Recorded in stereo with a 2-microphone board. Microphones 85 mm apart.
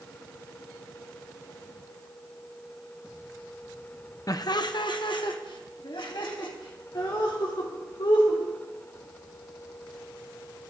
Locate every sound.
4.3 s laughter: 45° left (ahead or behind), 0.6 m; by 8.4 s 70° left (ahead or behind), 5 m